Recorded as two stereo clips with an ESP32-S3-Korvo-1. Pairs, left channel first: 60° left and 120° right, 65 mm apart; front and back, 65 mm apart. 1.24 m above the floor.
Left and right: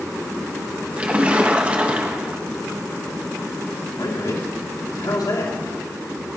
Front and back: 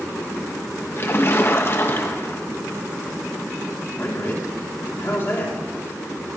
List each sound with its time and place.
1.0 s a splash: 50° right, 1.4 m
4.0 s a man speaking: 55° left, 3 m